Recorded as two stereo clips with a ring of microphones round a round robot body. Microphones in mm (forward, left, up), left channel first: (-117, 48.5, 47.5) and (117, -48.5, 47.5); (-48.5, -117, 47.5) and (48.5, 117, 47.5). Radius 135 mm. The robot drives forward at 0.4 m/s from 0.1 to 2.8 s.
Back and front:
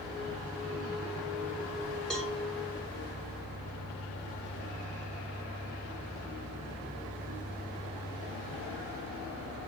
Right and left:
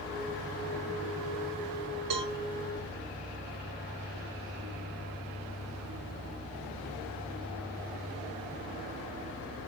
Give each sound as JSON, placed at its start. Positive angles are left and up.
{"t": 2.1, "sound": "a cowbell", "azimuth_deg": 70, "distance_m": 2.0}